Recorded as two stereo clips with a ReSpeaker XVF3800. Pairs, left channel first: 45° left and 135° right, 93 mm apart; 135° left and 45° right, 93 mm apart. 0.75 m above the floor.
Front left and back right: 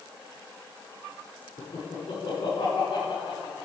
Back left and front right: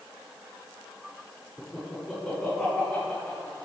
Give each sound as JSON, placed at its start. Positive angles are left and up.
{"t": 1.6, "sound": "laughter", "azimuth_deg": 60, "distance_m": 1.7}